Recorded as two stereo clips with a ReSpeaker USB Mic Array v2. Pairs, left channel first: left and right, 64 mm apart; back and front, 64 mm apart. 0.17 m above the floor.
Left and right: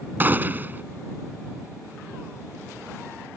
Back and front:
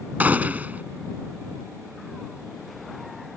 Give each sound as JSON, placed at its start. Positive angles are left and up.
{"t": 0.2, "sound": "a gunshot", "azimuth_deg": -50}